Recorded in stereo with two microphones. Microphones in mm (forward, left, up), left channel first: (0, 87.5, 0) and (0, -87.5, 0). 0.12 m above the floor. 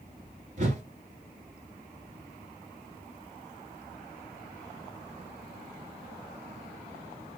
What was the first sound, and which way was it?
A whoosh, 45° right (ahead or behind).